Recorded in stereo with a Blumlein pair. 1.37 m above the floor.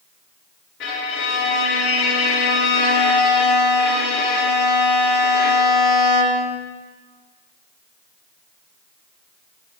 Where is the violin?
45° left, 1.1 m.